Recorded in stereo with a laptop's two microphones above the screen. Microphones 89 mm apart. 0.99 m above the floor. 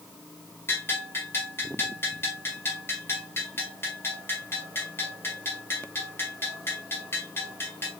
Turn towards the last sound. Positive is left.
turn(degrees=25)  # may be behind; listen again after turning